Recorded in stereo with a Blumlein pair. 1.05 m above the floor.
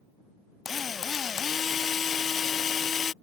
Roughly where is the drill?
Ahead.